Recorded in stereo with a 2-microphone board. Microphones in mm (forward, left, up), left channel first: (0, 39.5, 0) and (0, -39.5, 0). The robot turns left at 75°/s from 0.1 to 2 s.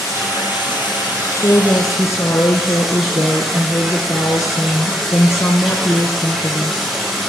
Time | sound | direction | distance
0.0 | running water | 135° left | 8 m
1.4 | a woman speaking | 120° left | 1.4 m